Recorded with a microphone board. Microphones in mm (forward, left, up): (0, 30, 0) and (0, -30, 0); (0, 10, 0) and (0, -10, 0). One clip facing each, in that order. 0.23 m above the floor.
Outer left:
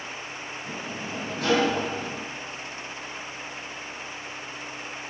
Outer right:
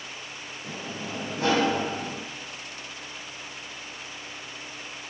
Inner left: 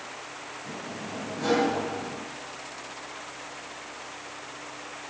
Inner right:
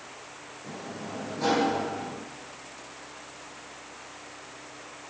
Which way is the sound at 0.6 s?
30° right (ahead or behind).